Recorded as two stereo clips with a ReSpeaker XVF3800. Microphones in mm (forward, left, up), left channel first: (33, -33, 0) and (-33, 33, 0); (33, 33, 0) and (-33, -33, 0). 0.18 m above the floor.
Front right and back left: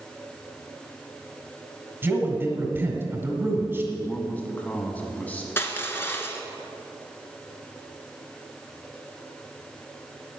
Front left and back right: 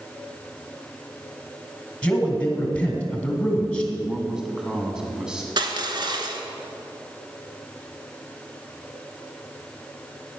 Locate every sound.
2.0 s a man speaking: 105° left, 1.7 m
3.9 s a man speaking: 70° right, 1.0 m
5.6 s crushing: 110° right, 1.0 m